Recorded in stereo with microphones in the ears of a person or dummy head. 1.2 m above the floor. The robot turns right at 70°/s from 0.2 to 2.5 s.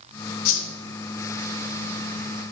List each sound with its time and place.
0.5 s a whoosh: 40° left (ahead or behind), 1.4 m; by 0.7 s 50° left (ahead or behind), 1.4 m